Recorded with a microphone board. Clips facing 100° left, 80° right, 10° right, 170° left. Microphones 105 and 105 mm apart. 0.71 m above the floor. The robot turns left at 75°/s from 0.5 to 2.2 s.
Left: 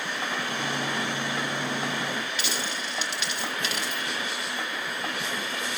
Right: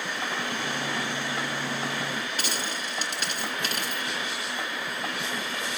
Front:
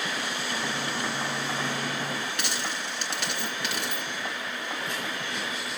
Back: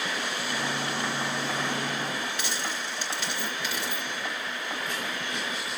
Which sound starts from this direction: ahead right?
A dropped coin, at 2.4 s.